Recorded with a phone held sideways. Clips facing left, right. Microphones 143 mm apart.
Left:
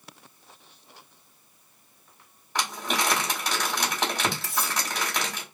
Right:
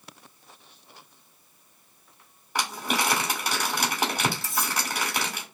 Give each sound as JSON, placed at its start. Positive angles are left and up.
{"t": 2.5, "sound": "crumpling", "side_deg": -10, "distance_m": 1.4}
{"t": 4.4, "sound": "cutlery clinking", "side_deg": 60, "distance_m": 0.8}